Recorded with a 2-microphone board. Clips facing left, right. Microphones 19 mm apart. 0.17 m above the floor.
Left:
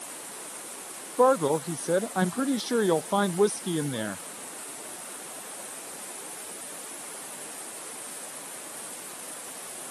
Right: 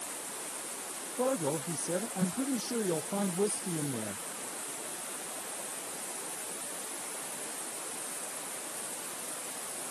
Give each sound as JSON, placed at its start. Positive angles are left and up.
{"t": 1.2, "sound": "a man speaking", "side_deg": 70}